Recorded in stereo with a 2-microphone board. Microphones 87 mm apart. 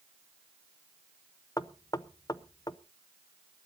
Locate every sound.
1.6 s knocking: 45° left (ahead or behind), 0.5 m